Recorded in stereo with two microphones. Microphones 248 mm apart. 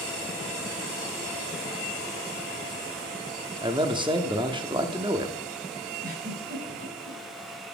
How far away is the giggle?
About 3.5 m.